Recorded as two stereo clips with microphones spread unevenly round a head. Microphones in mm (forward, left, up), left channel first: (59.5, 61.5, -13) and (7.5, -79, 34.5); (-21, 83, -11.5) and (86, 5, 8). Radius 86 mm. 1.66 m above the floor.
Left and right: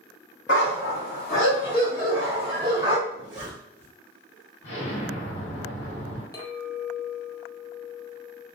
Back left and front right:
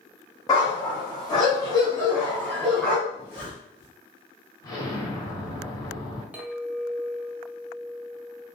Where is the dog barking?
85° left, 1.8 m; by 3.0 s 120° right, 1.4 m.